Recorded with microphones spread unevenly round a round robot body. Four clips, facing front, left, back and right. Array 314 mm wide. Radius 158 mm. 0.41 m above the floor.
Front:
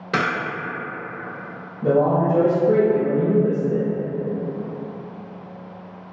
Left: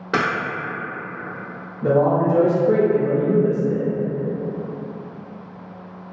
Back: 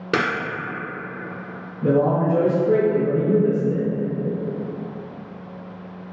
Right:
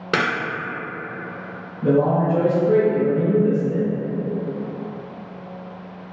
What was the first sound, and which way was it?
A camera shutter, 150° right.